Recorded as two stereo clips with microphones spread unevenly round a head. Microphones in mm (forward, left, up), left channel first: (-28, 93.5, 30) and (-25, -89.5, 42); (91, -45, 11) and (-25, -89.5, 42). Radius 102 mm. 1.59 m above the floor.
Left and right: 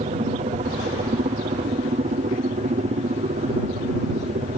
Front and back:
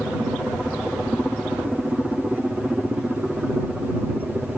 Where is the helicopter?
65° right; by 4.6 s 70° right.